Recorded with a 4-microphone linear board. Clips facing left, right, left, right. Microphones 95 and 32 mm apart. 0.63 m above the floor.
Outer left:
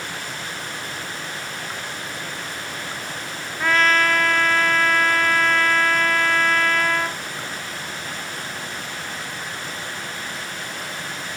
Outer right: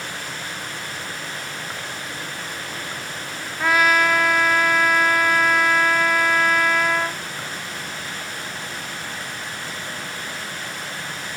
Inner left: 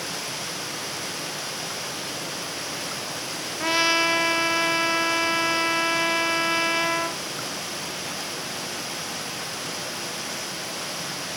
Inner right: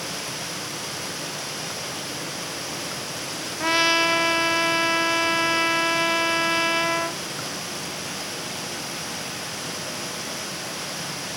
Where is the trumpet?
10° right (ahead or behind), 0.6 m.